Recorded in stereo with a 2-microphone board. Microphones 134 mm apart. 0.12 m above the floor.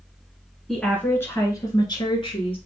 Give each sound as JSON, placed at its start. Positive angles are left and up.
{"t": 0.7, "sound": "a woman speaking", "side_deg": 5, "distance_m": 1.1}